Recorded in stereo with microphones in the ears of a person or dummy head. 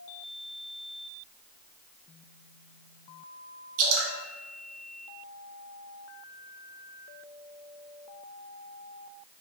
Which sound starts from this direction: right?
Dripping, at 3.8 s.